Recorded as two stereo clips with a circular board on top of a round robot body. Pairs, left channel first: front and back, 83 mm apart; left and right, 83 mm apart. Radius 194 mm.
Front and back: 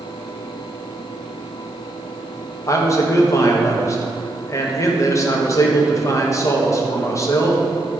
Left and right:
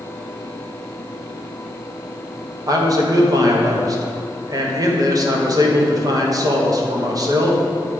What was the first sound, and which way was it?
A man speaking, 50° right.